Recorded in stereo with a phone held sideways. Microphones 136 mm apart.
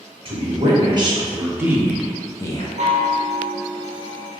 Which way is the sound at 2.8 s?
55° right (ahead or behind).